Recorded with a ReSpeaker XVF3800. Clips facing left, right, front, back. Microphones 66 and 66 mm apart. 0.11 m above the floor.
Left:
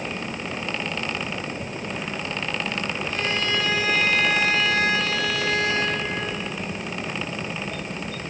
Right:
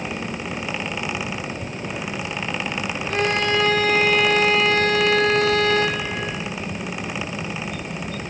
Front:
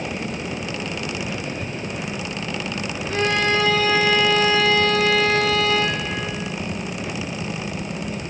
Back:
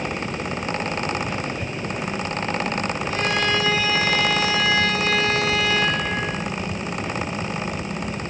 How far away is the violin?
About 1.5 m.